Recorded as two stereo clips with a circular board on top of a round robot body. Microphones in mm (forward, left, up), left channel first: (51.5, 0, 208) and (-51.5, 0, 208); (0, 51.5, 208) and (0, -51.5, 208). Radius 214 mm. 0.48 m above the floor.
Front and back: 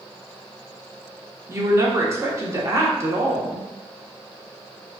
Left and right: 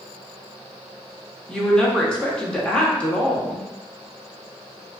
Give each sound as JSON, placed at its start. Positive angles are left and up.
{"t": 1.5, "sound": "a woman speaking", "azimuth_deg": 165, "distance_m": 1.1}